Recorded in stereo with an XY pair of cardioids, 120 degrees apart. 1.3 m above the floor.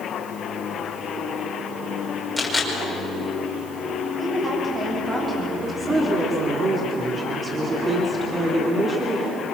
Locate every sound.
2.4 s a camera shutter: straight ahead, 5.5 m
4.2 s a woman speaking: 25° right, 9 m
5.6 s a woman speaking: 30° right, 3.5 m